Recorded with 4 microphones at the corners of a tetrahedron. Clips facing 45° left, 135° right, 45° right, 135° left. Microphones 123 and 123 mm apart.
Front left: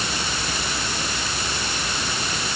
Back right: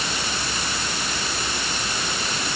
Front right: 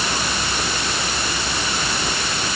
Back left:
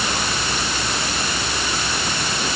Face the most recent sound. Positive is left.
No sound to turn to.